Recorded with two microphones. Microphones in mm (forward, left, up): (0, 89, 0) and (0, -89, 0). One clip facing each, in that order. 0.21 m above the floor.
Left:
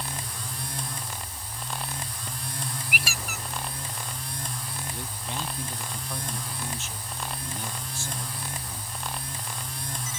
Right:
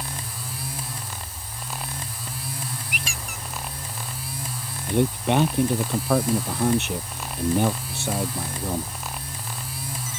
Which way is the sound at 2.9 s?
65° left (ahead or behind).